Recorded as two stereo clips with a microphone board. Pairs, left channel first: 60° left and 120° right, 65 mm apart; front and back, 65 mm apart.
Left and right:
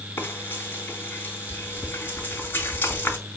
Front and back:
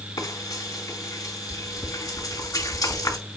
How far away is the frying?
About 3 m.